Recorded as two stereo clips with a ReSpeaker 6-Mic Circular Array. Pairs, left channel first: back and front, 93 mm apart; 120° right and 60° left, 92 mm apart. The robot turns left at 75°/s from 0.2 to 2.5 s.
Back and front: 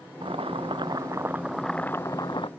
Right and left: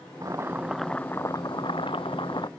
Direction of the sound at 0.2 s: 15° left.